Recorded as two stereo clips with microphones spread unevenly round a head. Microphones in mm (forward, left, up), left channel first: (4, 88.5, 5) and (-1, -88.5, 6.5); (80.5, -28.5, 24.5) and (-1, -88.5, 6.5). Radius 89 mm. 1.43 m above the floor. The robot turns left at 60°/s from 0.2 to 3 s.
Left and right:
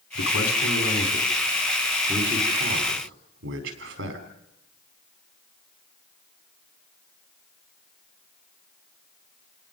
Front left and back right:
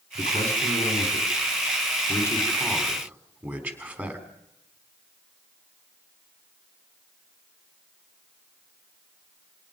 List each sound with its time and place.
0.1 s a man speaking: 95° left, 4 m; by 4.3 s 70° right, 4 m